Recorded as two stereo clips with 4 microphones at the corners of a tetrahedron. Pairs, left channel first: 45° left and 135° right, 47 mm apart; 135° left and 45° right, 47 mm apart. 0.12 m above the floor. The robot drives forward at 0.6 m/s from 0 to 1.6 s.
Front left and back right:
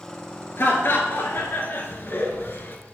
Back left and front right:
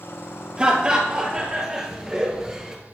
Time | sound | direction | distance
0.6 | laughter | 20° left | 2.5 m